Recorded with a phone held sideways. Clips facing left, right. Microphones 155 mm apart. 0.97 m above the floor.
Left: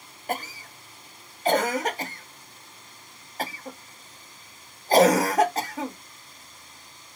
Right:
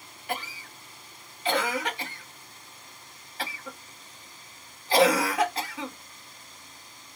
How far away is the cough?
About 0.7 m.